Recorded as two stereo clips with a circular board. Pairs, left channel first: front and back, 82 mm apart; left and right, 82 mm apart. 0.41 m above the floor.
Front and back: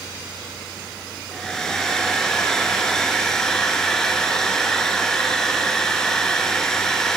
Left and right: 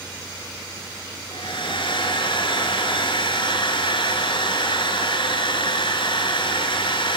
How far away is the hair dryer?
About 3 m.